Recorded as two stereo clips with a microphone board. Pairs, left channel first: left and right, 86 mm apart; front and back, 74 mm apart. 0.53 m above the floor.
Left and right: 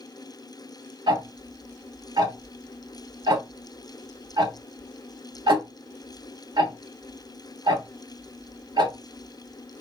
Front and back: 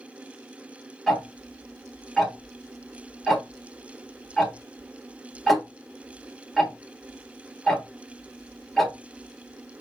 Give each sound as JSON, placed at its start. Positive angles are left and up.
{"t": 1.1, "sound": "ticking", "azimuth_deg": -90, "distance_m": 1.3}